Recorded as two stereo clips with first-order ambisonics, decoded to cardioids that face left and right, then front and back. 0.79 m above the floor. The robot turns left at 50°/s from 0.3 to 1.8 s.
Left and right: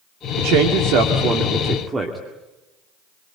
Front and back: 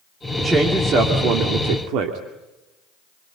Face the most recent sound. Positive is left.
turn(degrees=-165)